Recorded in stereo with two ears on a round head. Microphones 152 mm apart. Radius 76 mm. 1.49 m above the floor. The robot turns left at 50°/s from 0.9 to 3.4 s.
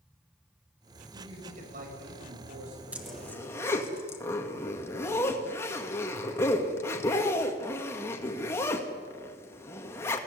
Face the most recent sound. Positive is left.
turn(degrees=15)  # may be behind; listen again after turning